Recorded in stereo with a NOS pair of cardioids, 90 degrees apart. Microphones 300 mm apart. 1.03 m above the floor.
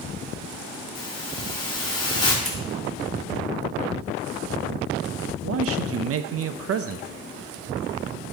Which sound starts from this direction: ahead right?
A man speaking, at 5.4 s.